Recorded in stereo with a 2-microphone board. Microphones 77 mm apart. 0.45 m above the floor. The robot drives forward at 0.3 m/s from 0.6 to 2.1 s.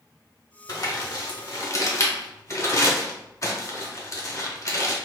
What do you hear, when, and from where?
0.7 s crumpling: 50° left (ahead or behind), 0.8 m; by 5.0 s 40° left (ahead or behind), 0.9 m